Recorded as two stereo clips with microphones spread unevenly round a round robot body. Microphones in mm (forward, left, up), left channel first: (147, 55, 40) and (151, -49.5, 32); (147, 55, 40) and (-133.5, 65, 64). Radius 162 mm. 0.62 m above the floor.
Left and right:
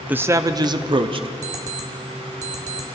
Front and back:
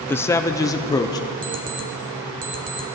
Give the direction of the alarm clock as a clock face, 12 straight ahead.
4 o'clock.